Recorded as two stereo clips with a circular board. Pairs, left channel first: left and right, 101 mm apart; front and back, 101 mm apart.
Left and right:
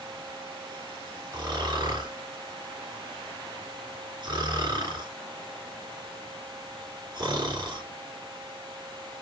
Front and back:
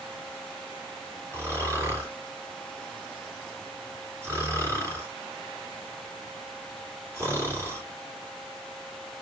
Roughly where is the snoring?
Behind right.